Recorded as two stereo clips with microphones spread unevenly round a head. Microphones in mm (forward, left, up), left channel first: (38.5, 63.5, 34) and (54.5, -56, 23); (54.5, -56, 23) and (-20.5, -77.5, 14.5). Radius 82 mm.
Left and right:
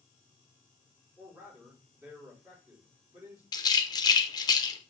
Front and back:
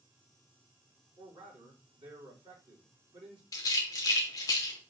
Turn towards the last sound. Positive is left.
turn(degrees=50)